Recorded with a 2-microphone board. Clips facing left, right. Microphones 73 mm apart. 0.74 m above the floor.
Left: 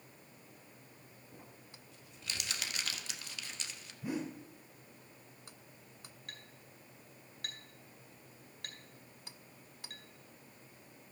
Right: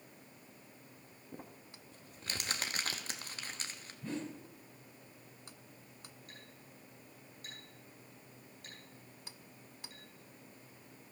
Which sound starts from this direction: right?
Crumpling, at 1.3 s.